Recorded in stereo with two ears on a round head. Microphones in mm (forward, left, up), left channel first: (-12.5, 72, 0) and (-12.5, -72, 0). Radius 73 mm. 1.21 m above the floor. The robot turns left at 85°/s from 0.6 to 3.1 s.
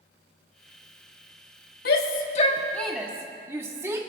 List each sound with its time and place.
1.9 s a shout: 65° left (ahead or behind), 1.1 m; by 4.0 s 15° right (ahead or behind), 1.1 m